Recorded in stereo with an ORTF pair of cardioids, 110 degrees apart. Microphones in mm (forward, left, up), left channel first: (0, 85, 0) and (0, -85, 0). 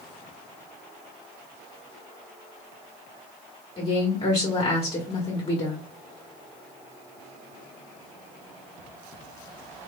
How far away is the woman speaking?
About 1.4 m.